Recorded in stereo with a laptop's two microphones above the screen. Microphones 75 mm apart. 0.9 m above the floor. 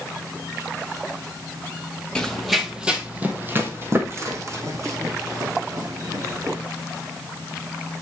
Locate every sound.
2.1 s running footsteps: 10° left (ahead or behind), 1.3 m; by 6.6 s 55° right (ahead or behind), 3.5 m